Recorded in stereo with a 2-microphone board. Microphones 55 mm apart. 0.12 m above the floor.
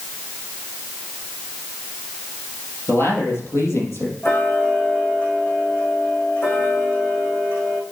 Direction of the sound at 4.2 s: 45° left (ahead or behind).